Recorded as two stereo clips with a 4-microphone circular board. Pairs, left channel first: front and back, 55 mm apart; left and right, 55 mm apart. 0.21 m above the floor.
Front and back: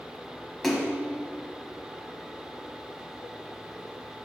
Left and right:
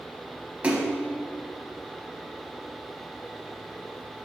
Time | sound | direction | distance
0.6 | a splash | 80° right | 1.1 m